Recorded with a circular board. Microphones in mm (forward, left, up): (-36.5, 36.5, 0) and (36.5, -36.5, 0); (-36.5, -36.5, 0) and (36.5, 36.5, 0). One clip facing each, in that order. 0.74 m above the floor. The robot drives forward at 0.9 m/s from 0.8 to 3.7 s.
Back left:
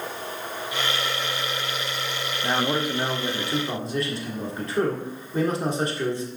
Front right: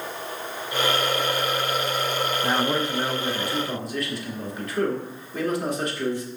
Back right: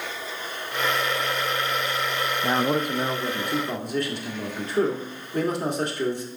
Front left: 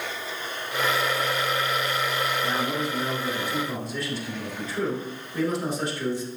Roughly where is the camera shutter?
I don't hear a camera shutter.